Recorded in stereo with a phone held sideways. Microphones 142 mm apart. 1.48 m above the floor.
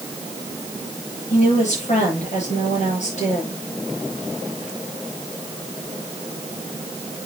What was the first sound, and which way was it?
A woman speaking, 55° left (ahead or behind).